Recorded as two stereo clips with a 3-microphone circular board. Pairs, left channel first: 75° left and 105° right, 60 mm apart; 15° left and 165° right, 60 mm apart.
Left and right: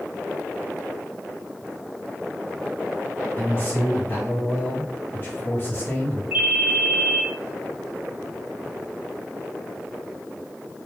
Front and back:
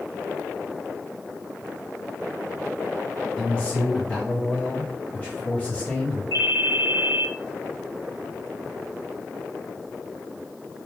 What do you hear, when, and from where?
3.4 s a man speaking: 65° left, 1.6 m
6.3 s a ringtone: 165° right, 1.0 m